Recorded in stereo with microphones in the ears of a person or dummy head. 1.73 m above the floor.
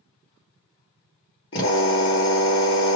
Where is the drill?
30° left (ahead or behind), 1.5 m.